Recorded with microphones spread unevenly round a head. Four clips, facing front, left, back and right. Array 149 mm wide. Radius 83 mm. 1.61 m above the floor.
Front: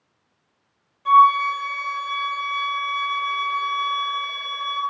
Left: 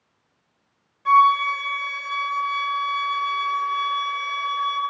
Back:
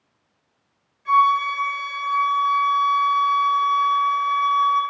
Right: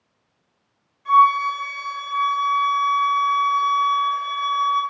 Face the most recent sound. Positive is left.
turn(degrees=45)